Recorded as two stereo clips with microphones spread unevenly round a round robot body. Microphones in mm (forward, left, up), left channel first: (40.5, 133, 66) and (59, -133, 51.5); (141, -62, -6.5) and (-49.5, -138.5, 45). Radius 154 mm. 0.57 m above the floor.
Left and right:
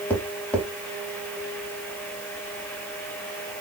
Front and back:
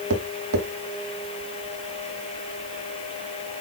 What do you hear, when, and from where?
0.1 s tapping: straight behind, 0.9 m